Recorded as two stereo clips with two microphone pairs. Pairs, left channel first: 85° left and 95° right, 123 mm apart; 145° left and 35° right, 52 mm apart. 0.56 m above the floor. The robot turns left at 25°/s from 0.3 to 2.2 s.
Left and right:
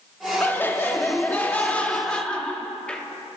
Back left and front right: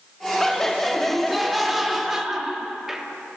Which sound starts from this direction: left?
Laughter, at 0.4 s.